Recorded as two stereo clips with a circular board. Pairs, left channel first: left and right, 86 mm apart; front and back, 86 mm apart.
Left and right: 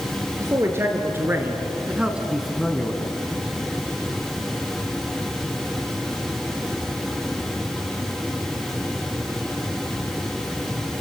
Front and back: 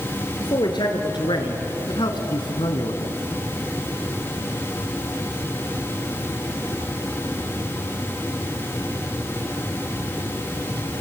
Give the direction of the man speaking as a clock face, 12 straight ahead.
1 o'clock.